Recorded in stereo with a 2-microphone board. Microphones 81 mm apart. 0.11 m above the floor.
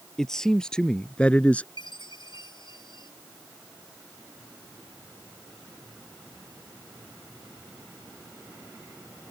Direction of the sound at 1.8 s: 70° left (ahead or behind).